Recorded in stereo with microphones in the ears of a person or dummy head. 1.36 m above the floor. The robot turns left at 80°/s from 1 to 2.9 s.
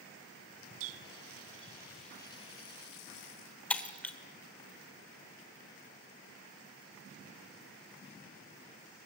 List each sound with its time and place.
0.8 s a running tap: 100° right, 1.1 m; by 3.5 s 110° left, 1.1 m
3.7 s breaking glass: 5° left (ahead or behind), 1.4 m